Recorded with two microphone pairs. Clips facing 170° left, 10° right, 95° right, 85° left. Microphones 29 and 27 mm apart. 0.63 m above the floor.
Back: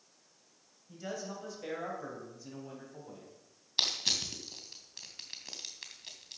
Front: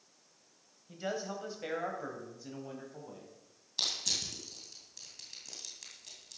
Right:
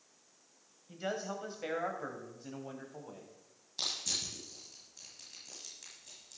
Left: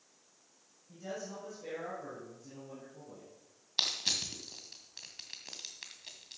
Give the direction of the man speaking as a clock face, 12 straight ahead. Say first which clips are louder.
Front 3 dB, right 4 dB; 2 o'clock.